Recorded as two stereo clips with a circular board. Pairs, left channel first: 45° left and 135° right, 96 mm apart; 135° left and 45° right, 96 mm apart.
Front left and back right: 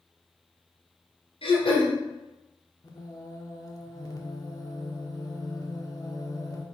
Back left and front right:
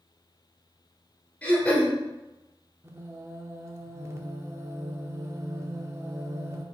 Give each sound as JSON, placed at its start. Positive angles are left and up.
{"t": 1.4, "sound": "throat clearing", "azimuth_deg": 55, "distance_m": 3.0}
{"t": 2.8, "sound": "singing", "azimuth_deg": 5, "distance_m": 0.9}